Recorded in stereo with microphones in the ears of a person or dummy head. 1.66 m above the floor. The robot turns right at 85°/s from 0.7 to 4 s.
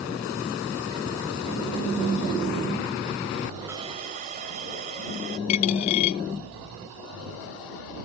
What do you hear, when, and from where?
3.7 s a hiss: 10° right (ahead or behind); by 5.4 s 40° right (ahead or behind)
5.5 s a dropped coin: 35° left (ahead or behind)